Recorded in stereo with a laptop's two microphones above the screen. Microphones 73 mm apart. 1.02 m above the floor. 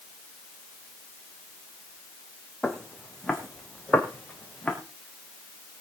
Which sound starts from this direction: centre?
Footsteps, at 2.6 s.